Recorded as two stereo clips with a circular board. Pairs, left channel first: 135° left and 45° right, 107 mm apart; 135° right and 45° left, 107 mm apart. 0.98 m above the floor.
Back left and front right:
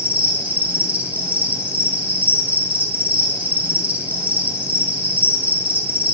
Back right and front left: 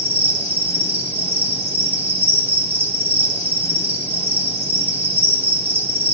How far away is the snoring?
No snoring in this recording.